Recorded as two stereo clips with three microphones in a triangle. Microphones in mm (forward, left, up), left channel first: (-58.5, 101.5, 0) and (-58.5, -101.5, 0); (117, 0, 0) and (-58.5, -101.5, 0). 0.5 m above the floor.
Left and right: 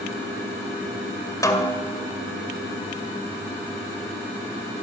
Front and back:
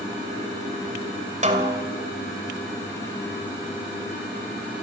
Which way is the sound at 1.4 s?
160° left.